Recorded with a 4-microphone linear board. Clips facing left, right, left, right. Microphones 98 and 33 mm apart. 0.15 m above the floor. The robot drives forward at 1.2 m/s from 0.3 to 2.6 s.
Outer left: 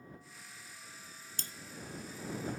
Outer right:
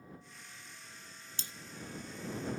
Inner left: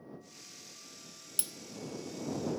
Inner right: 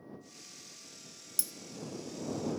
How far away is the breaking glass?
About 0.7 m.